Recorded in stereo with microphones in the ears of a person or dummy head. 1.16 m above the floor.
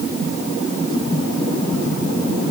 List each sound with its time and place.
Only background noise.